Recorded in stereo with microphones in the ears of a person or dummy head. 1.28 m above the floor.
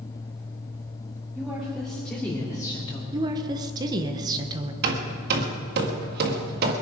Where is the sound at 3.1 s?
25° right (ahead or behind), 1.2 m.